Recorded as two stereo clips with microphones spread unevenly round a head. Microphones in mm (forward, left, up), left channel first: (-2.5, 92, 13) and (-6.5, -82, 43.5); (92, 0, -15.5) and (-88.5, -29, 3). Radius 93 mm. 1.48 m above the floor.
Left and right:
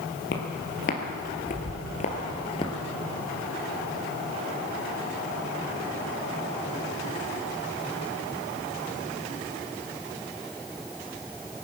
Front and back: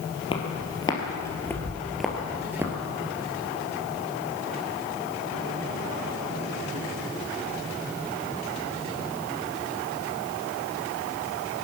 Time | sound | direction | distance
0.3 | footsteps | 65° left | 1.9 m